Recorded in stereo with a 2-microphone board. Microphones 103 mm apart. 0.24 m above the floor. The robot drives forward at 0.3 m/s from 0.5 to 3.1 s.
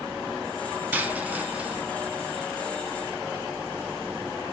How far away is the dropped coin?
About 0.8 m.